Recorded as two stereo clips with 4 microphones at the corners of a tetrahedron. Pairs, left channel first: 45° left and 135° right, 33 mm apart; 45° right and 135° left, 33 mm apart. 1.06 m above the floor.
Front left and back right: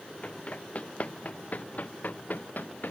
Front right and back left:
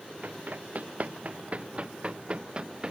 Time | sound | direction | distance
0.2 | running footsteps | 95° left | ?